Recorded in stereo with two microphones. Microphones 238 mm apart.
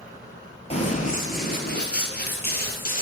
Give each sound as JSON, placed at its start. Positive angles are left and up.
{"t": 0.7, "sound": "running footsteps", "side_deg": 25, "distance_m": 1.1}